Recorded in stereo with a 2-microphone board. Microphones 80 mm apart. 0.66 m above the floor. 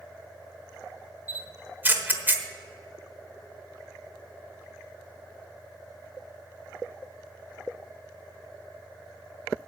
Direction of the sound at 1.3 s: 25° right (ahead or behind).